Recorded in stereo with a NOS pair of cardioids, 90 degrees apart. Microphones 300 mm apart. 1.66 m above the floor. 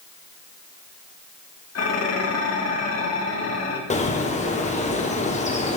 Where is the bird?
25° left, 1.5 m.